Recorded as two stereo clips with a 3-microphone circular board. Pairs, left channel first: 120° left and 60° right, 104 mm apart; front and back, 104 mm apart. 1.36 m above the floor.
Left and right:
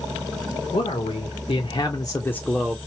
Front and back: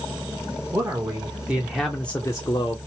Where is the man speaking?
115° left, 1.1 m; by 2.8 s 20° left, 0.6 m.